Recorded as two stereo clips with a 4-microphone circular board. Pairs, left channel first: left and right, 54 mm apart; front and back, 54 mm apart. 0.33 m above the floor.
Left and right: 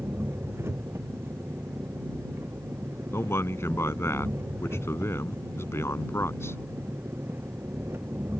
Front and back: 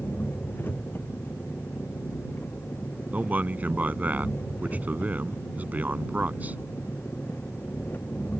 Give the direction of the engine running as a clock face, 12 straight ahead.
2 o'clock.